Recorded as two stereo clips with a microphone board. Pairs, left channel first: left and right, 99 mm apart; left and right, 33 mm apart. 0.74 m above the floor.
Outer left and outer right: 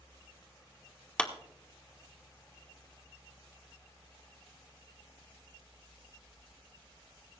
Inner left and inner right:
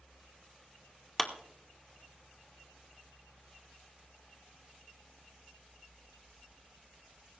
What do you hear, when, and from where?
1.2 s a clap: 10° left (ahead or behind), 1.3 m